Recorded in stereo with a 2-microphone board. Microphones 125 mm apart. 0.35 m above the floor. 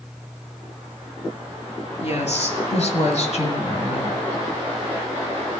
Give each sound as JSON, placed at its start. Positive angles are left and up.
{"t": 2.0, "sound": "a woman speaking", "side_deg": 60, "distance_m": 3.5}